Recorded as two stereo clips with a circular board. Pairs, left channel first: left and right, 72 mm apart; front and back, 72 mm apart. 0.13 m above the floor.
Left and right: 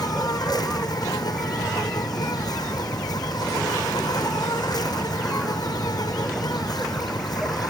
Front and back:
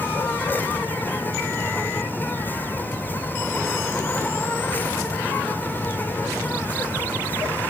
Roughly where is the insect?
Ahead left.